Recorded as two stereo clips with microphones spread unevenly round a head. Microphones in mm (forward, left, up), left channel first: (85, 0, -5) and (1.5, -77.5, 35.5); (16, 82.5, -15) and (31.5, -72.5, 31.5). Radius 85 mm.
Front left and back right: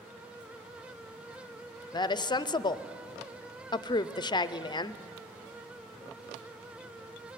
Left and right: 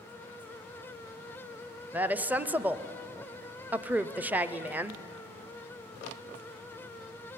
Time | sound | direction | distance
1.9 | a woman speaking | straight ahead | 0.6 m